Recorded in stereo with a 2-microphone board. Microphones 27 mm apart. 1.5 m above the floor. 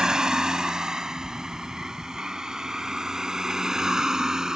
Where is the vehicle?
25° right (ahead or behind); by 4.6 s 20° right (ahead or behind).